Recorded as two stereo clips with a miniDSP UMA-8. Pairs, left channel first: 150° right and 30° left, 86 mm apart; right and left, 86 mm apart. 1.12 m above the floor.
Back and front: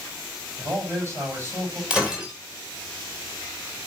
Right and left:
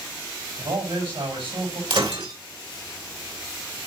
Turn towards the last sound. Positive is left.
turn(degrees=110)